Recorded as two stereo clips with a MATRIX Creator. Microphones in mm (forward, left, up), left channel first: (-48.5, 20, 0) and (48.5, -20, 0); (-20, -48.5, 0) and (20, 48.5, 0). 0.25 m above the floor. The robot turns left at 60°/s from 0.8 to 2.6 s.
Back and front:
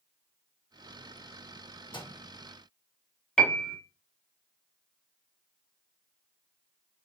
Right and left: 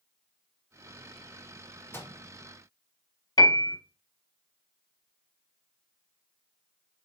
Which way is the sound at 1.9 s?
175° right.